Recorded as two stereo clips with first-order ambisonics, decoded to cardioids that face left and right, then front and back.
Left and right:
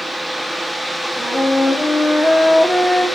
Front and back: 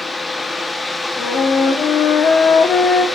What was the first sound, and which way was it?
A flute, 5° right.